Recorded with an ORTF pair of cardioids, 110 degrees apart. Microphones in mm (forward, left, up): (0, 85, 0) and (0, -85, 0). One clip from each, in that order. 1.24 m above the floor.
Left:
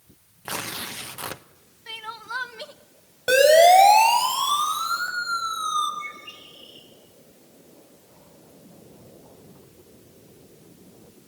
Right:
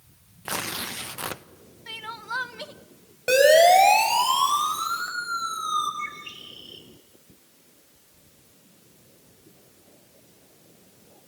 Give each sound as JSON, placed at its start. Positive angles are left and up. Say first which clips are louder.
{"t": 0.5, "sound": "tearing paper", "louder": "right 1 dB", "azimuth_deg": -5, "distance_m": 0.6}
{"t": 1.9, "sound": "crying", "louder": "even", "azimuth_deg": 0, "distance_m": 0.8}
{"t": 3.3, "sound": "a siren", "louder": "left 2 dB", "azimuth_deg": 0, "distance_m": 6.5}
{"t": 6.0, "sound": "a bird", "louder": "right 2 dB", "azimuth_deg": -70, "distance_m": 4.5}